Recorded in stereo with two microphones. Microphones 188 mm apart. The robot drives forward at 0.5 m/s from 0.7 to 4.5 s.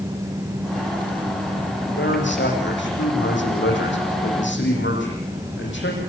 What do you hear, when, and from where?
1.9 s a man speaking: 80° left, 9.5 m